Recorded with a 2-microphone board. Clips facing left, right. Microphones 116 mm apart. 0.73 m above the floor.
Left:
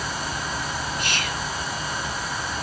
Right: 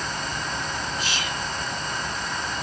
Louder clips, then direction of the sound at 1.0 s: Left 1 dB; 60° left (ahead or behind).